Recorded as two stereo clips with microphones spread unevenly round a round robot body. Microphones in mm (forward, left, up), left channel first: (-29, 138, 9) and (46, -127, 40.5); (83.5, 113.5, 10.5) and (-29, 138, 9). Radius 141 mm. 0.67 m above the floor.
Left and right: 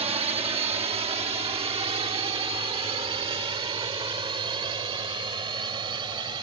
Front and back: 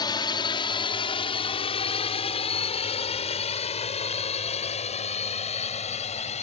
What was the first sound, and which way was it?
A drone, 10° right.